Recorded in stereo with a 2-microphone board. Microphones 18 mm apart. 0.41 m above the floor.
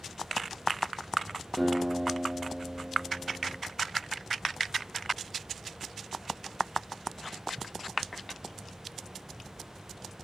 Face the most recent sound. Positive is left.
turn(degrees=10)  # may be behind; listen again after turning